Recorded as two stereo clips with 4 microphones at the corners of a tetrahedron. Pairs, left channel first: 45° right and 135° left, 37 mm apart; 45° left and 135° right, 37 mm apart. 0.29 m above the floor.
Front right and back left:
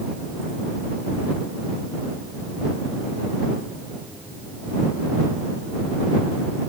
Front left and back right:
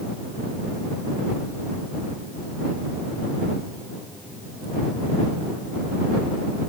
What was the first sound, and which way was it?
Only background noise.